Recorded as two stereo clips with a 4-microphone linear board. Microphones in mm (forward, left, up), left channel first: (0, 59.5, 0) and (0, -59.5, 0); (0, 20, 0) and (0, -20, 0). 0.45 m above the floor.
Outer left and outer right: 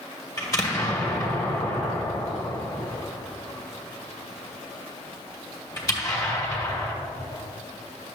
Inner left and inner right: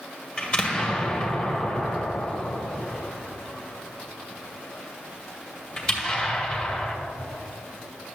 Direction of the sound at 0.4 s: 25° left (ahead or behind).